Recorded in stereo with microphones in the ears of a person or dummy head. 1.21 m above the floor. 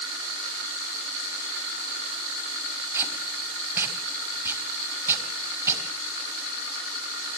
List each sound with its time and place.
2.9 s tape being pulled: 15° right (ahead or behind), 3.5 m